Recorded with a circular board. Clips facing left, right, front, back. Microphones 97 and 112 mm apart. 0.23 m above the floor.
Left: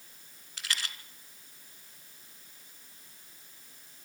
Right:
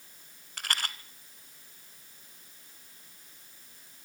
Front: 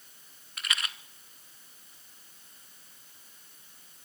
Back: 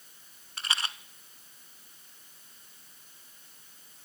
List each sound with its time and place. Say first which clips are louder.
0.6 s a rattle: right 4 dB, back 1 dB; 125° right, 0.9 m